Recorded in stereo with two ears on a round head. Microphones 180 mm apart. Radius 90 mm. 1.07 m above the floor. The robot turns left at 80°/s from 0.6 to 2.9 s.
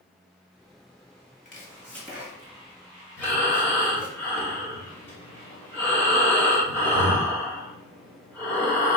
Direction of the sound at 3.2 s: 10° left (ahead or behind).